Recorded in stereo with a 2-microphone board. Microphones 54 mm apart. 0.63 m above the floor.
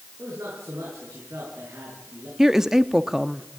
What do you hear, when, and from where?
0.2 s a man speaking: 55° right (ahead or behind), 8.5 m
2.4 s a woman speaking: 10° right (ahead or behind), 0.9 m